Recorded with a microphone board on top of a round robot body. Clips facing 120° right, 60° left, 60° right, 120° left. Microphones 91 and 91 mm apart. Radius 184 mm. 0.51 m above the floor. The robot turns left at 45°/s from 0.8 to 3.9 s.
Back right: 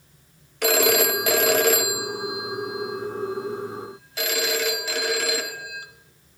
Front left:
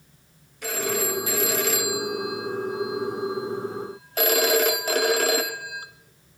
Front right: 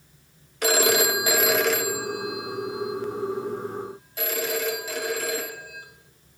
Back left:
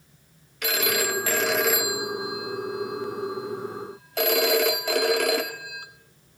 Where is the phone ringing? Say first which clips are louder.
Back right 7 dB, front right 5 dB; 115° right, 0.8 m; by 5.9 s 105° left, 0.8 m.